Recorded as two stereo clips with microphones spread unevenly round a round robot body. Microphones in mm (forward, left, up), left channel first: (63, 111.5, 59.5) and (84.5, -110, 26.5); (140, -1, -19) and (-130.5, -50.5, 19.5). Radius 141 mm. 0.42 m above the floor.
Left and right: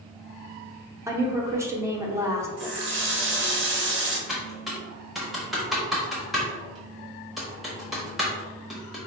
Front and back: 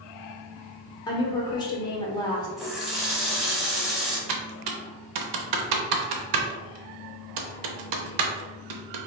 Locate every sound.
1.1 s a woman speaking: 35° right, 1.0 m
2.6 s a running tap: 75° right, 1.1 m
4.3 s typing on a keyboard: 170° right, 0.7 m